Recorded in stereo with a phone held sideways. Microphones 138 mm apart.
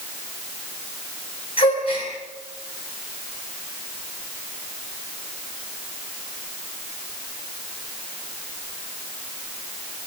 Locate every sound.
1.6 s a gasp: 45° left (ahead or behind), 9 m